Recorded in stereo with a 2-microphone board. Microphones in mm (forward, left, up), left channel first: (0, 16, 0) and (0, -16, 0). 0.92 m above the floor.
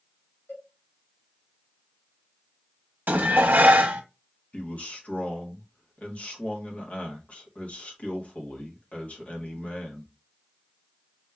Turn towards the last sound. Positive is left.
turn(degrees=45)  # may be behind; listen again after turning